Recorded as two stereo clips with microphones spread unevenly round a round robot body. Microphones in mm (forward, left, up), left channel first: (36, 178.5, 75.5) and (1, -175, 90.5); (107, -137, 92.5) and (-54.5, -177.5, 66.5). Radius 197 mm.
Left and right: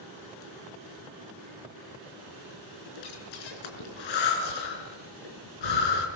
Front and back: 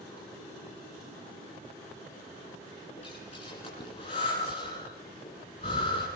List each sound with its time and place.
3.0 s breathing: 80° left, 4.5 m